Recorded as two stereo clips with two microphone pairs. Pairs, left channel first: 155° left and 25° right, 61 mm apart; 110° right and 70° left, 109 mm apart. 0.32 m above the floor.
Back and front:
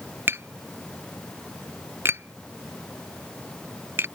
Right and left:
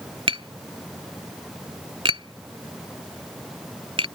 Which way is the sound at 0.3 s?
30° left.